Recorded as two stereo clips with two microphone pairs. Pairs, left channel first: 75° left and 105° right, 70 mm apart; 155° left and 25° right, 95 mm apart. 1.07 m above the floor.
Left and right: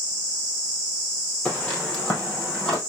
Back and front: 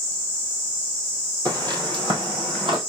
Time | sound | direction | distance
1.4 | footsteps | 10° left | 1.7 m